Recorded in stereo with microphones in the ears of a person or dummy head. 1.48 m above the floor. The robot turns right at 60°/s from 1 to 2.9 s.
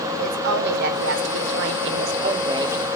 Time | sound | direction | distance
0.2 | a woman speaking | 120° right | 0.6 m